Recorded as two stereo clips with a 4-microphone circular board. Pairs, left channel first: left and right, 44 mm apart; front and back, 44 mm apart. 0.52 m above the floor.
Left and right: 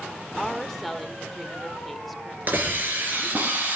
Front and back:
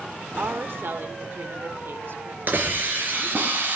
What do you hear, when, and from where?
0.4 s a woman speaking: 175° left, 1.4 m
2.5 s a hiss: 135° right, 3 m